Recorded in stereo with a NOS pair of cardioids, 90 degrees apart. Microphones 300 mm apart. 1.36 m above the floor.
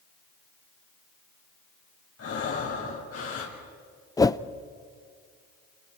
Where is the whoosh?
10° left, 0.6 m.